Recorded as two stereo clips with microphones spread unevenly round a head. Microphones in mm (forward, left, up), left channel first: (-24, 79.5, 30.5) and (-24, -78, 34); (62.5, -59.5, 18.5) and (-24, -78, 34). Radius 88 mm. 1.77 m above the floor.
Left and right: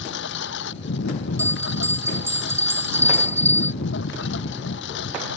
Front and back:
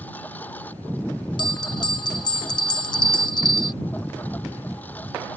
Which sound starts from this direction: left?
A lawn mower, at 0.0 s.